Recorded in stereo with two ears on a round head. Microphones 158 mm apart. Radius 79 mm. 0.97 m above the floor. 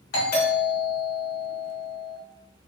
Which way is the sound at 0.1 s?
60° left (ahead or behind).